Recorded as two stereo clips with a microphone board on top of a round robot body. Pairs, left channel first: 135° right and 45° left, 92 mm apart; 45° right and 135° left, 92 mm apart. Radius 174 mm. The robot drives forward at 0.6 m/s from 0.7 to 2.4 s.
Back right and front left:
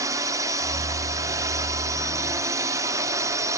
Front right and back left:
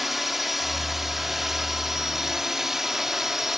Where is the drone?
50° left.